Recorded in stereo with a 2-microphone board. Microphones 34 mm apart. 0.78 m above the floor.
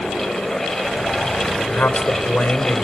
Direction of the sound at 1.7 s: 60° left (ahead or behind).